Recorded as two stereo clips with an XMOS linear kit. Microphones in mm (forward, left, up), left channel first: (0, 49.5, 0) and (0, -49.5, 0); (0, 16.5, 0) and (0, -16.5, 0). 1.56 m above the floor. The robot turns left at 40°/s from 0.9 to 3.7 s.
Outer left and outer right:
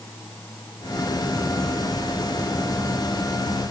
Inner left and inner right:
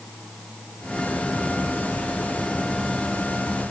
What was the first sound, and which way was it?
Only background noise.